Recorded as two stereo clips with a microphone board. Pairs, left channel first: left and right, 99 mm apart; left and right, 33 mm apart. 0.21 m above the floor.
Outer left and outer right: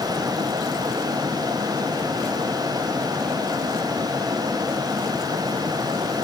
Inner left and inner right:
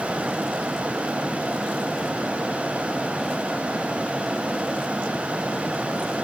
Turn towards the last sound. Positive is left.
No sound to turn to.